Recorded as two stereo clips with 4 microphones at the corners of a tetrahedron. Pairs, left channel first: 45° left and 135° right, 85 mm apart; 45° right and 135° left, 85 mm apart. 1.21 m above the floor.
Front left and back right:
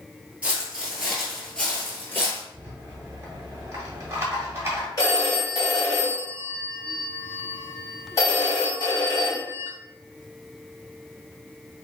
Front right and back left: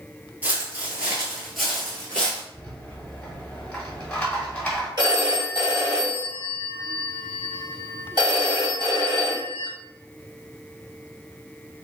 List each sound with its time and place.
0.4 s footsteps: 175° left, 1.2 m; by 2.4 s 20° left, 1.3 m
2.5 s a rattle: 110° right, 1.1 m
5.0 s a phone ringing: 95° left, 1.4 m